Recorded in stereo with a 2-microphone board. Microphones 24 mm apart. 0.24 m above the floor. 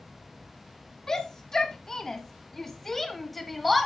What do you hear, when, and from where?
1.1 s a shout: 25° left (ahead or behind), 2 m; by 3.9 s centre (ahead or behind), 1.3 m